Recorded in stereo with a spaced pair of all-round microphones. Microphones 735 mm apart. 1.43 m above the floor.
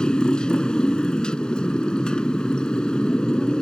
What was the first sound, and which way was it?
A motorcycle, centre (ahead or behind).